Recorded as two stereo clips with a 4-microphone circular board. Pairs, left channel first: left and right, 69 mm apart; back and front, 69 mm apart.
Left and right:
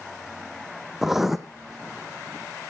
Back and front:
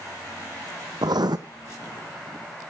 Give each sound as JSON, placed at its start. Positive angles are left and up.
{"t": 1.0, "sound": "writing", "azimuth_deg": -5, "distance_m": 1.2}